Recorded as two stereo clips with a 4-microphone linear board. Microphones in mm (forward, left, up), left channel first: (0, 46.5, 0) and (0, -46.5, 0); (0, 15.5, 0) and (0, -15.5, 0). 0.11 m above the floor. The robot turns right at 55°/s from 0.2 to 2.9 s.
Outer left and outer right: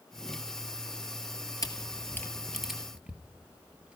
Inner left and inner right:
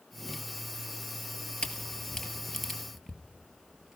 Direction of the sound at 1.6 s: 45° left (ahead or behind).